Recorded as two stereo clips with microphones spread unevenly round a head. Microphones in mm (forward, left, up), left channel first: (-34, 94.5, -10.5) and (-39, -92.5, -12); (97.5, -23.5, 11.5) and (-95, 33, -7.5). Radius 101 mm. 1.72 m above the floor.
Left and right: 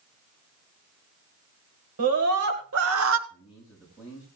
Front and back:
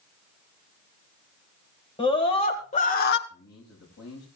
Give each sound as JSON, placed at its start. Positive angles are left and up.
{"t": 2.0, "sound": "a scream", "azimuth_deg": -85, "distance_m": 2.5}
{"t": 3.3, "sound": "a man speaking", "azimuth_deg": -5, "distance_m": 7.0}